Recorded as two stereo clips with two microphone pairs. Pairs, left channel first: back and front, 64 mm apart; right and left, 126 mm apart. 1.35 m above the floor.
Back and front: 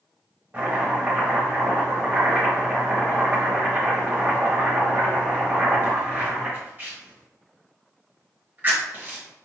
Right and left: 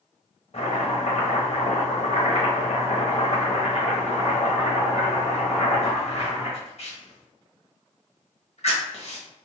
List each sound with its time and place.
0.5 s chopping: 60° right, 1.1 m